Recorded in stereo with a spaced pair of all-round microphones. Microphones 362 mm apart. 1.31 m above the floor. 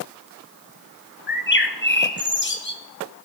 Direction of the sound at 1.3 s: 30° left (ahead or behind).